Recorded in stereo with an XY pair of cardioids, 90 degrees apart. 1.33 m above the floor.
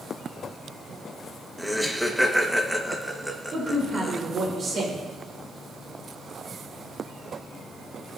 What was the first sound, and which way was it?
Laughter, 5° right.